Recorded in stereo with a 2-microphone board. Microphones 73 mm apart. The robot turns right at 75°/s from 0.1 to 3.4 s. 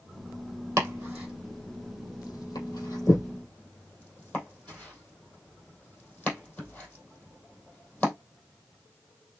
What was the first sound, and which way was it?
Chopping, 35° right (ahead or behind).